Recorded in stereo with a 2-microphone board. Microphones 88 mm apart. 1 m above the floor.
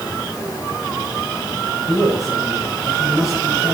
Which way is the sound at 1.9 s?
40° left (ahead or behind).